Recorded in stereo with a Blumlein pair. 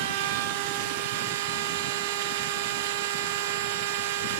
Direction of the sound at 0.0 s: 50° right.